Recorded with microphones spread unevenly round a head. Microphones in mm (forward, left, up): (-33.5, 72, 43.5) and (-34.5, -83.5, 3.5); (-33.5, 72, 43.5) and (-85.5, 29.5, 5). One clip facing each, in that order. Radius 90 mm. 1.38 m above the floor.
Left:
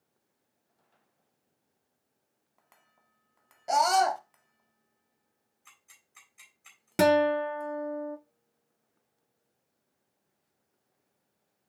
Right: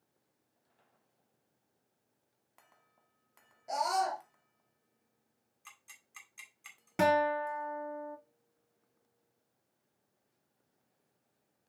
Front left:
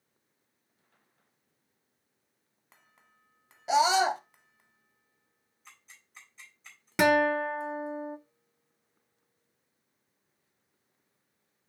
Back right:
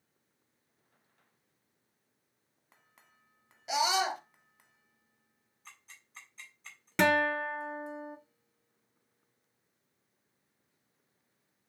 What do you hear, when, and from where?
3.7 s a scream: 95° left, 0.7 m
5.7 s ticking: 60° right, 2 m
7.0 s a guitar: 85° left, 0.5 m